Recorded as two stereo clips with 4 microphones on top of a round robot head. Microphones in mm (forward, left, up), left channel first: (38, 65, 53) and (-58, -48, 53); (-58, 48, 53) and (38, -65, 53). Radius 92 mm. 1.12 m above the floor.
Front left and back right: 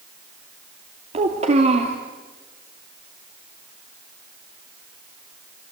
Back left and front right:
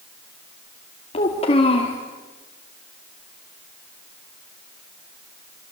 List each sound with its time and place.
1.1 s a child speaking: straight behind, 2.5 m